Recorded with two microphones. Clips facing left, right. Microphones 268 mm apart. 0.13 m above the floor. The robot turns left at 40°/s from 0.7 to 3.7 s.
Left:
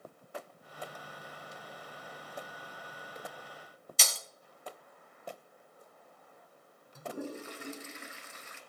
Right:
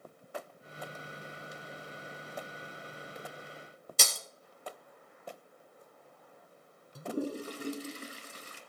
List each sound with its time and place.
4.0 s breaking glass: 45° right (ahead or behind), 1.1 m
7.0 s a toilet flushing: 35° right (ahead or behind), 1.2 m